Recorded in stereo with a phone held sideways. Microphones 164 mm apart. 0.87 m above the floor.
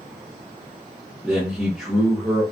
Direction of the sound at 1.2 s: Centre (ahead or behind).